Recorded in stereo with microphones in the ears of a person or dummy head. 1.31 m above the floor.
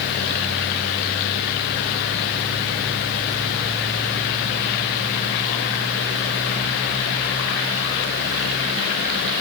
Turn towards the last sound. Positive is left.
No sound to turn to.